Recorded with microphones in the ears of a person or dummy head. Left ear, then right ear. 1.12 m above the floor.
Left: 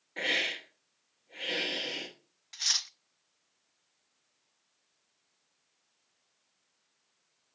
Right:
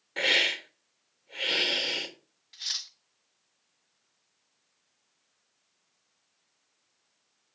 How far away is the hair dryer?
I don't hear a hair dryer.